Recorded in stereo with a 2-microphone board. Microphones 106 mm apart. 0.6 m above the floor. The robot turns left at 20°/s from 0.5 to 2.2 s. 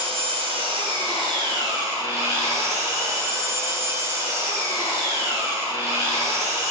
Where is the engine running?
115° right, 2.5 m; by 6.7 s 150° right, 2.5 m.